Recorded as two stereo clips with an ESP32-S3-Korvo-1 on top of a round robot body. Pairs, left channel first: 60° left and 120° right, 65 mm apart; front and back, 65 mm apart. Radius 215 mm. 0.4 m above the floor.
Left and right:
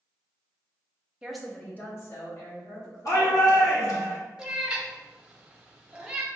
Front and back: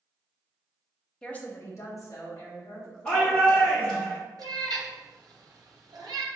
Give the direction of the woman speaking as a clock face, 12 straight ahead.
2 o'clock.